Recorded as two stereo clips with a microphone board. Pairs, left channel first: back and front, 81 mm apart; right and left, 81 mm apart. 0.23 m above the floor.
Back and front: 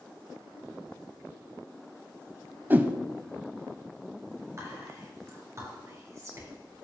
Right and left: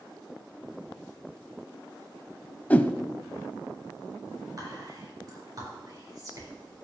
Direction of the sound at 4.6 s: 50° left.